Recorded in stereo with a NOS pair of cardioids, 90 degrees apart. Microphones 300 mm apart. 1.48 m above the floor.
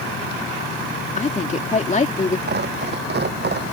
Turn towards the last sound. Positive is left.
turn(degrees=-35)